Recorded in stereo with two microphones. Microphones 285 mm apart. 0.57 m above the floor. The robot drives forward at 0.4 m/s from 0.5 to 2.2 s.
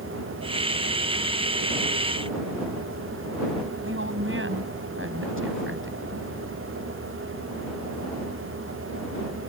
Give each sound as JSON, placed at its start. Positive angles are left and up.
{"t": 3.8, "sound": "a woman speaking", "side_deg": -45}